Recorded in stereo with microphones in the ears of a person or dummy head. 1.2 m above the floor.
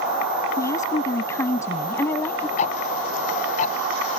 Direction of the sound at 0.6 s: 15° left (ahead or behind).